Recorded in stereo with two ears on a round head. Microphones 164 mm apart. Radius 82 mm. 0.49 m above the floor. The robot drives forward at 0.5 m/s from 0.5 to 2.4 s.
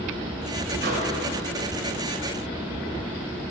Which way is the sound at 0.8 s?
60° right (ahead or behind).